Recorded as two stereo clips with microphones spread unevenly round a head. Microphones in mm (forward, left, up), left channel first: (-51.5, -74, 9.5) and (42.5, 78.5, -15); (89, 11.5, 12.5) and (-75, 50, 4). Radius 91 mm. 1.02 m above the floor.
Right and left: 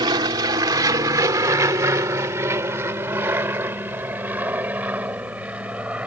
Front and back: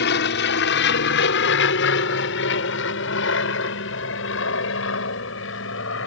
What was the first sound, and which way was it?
An aircraft, 10° right.